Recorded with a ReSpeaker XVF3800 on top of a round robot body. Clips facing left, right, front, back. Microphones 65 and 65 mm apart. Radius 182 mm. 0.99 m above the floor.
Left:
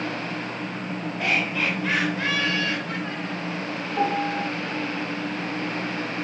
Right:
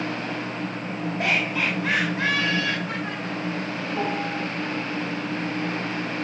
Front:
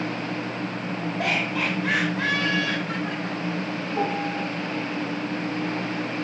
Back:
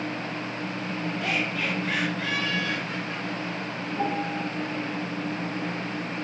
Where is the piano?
10° left, 9.5 m.